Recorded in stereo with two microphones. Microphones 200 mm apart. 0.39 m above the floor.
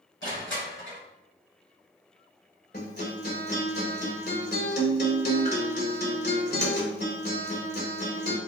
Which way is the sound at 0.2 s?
75° left (ahead or behind).